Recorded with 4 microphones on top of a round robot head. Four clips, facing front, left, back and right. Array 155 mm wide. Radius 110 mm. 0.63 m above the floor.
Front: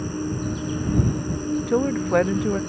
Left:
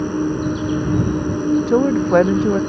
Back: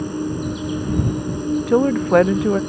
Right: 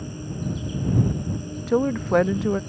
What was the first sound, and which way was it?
An insect, 100° left.